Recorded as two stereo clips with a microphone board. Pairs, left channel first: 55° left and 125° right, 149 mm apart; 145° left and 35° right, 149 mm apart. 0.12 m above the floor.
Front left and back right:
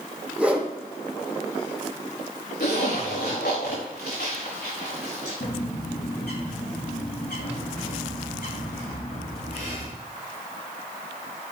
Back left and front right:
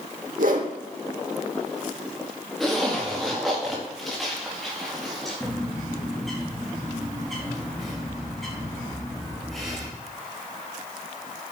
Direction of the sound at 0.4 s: 45° right.